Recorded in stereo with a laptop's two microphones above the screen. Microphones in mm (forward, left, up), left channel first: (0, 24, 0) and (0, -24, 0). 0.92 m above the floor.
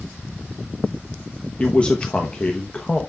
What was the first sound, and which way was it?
A man speaking, 25° left (ahead or behind).